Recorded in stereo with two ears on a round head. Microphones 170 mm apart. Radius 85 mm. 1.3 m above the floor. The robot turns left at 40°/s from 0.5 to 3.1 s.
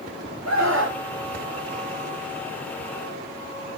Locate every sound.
0.5 s a scream: 85° right, 4 m; by 1.0 s 65° right (ahead or behind), 4 m